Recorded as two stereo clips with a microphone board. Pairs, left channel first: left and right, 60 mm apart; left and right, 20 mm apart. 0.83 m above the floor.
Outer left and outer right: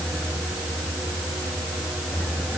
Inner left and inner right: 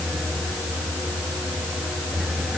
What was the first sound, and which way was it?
Only background noise.